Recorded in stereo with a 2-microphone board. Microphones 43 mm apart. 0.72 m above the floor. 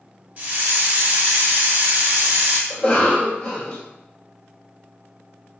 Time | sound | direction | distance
0.4 | a hiss | 40° right (ahead or behind) | 1.9 m
2.7 | a cough | 25° left (ahead or behind) | 1.4 m